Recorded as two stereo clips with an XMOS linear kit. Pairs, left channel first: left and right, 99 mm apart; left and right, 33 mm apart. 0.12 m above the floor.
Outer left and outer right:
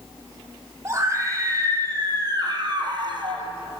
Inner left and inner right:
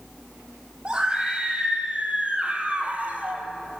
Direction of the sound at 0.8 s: 30° right (ahead or behind).